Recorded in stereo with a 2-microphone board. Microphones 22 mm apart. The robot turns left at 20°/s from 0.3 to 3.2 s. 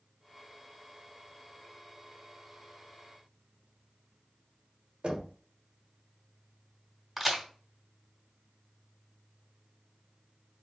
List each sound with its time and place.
5.0 s knocking: 60° right (ahead or behind), 1.3 m
7.2 s a crack: centre (ahead or behind), 2.5 m